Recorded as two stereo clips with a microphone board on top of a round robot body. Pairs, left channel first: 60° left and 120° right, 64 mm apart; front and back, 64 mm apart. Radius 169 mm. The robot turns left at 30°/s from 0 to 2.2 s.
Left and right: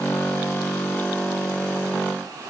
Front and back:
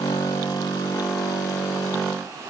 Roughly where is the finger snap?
I don't hear a finger snap.